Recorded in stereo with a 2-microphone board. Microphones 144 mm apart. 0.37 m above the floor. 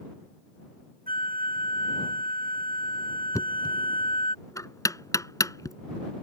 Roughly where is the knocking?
Left.